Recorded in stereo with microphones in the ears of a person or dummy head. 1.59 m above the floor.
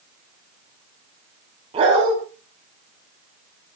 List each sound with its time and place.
1.7 s a dog barking: 35° right (ahead or behind), 5 m